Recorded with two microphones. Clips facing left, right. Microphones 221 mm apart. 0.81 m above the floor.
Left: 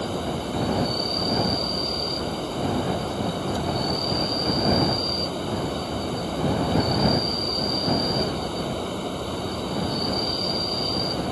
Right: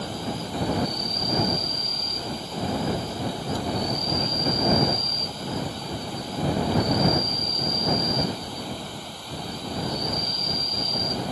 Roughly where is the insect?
Left.